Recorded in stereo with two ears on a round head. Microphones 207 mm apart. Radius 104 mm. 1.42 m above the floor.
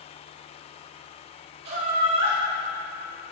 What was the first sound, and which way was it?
Laughter, 45° right (ahead or behind).